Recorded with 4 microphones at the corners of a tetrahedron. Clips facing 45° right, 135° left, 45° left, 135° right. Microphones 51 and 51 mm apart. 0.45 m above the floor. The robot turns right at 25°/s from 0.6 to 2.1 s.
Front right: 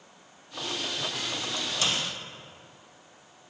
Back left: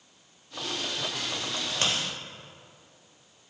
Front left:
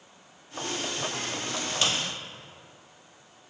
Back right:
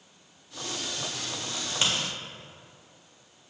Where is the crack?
155° left, 1.4 m; by 1.9 s 165° left, 1.4 m.